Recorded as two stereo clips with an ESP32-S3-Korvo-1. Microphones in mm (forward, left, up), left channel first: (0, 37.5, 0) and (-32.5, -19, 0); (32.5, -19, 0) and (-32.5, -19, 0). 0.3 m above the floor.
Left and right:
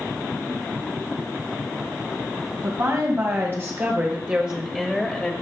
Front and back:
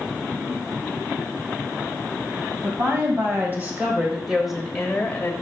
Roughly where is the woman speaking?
Behind right.